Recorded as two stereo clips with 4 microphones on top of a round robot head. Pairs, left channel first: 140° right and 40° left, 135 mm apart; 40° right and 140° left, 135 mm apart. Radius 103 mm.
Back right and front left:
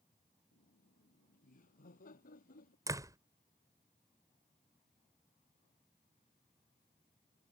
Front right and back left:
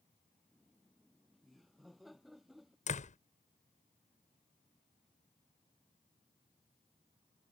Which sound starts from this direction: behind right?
Laughter, at 0.5 s.